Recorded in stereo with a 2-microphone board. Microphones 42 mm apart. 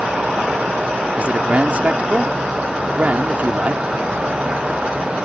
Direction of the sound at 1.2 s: 35° right (ahead or behind).